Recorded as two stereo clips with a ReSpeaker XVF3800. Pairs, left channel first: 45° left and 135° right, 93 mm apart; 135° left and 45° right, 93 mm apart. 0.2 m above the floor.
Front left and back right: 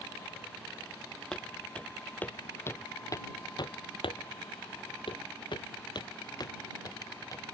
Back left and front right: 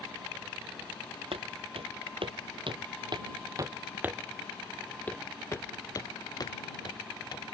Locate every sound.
1.3 s footsteps: 35° right; by 7.5 s 95° left